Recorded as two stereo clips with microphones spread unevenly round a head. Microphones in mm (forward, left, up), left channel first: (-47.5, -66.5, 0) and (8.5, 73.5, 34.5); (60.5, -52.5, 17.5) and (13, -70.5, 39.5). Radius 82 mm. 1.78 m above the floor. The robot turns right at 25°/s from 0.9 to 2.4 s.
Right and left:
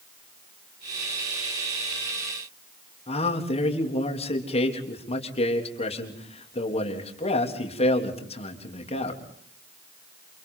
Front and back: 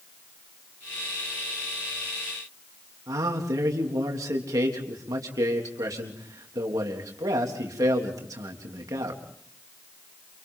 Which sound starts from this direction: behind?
A man speaking, at 3.1 s.